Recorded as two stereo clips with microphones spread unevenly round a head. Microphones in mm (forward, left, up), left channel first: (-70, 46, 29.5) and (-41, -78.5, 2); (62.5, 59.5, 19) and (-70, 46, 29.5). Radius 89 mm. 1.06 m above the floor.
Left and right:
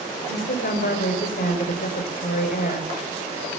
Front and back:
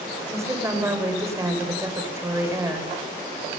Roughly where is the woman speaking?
Behind left.